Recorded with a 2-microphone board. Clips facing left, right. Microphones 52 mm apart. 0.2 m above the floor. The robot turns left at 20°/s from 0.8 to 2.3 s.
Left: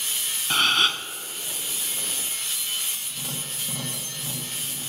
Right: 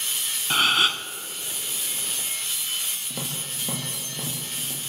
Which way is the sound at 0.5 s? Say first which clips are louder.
Even; 5° right (ahead or behind).